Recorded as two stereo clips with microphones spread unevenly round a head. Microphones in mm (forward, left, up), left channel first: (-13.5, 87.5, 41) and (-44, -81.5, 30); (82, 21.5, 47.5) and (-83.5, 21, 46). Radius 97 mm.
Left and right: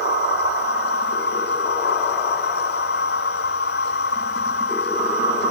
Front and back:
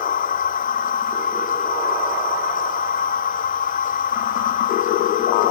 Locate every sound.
0.0 s a machine running: 40° left